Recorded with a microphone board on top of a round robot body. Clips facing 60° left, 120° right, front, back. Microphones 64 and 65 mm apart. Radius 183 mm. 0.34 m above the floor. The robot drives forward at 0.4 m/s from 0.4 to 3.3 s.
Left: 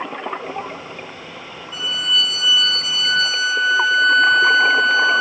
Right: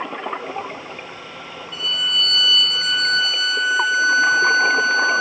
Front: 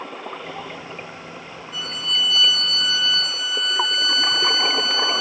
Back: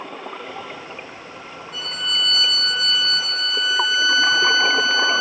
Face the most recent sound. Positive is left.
turn(degrees=145)